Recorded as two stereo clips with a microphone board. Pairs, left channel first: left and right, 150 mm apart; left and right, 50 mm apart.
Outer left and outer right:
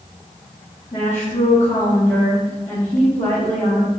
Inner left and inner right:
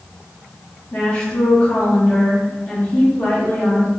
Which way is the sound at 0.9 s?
45° left (ahead or behind).